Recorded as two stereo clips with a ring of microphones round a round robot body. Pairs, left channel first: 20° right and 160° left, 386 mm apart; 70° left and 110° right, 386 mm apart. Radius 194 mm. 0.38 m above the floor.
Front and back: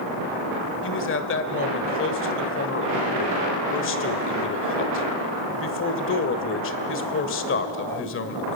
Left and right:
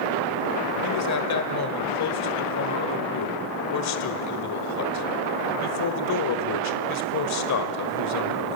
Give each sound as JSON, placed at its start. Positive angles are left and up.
{"t": 0.8, "sound": "a man speaking", "azimuth_deg": 30, "distance_m": 1.4}